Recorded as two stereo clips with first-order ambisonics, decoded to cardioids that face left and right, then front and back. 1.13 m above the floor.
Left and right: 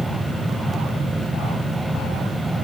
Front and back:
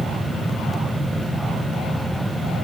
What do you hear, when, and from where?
Only background noise.